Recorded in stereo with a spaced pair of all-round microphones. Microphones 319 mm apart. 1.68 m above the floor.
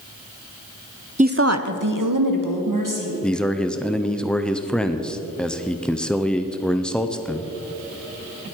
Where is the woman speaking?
20° right (ahead or behind), 0.7 m; by 3.1 s 70° right (ahead or behind), 2.5 m.